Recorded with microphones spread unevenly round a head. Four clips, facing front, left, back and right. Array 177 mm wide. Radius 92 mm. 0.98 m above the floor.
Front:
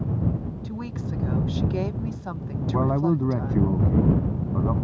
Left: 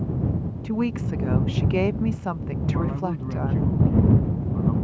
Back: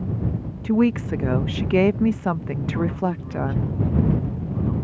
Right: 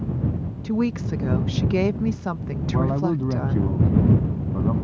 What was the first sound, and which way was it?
A woman speaking, 155° right.